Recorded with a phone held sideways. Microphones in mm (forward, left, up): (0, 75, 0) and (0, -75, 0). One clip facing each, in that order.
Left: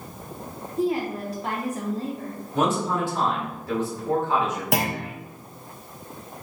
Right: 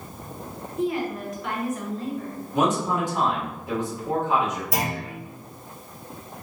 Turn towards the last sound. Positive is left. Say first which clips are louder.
# left 2 dB
turn(degrees=70)  # may be behind; listen again after turning